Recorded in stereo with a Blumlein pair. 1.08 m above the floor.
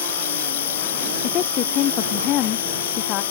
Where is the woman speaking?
35° left.